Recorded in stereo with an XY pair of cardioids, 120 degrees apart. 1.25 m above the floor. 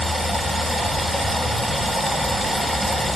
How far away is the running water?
About 0.7 m.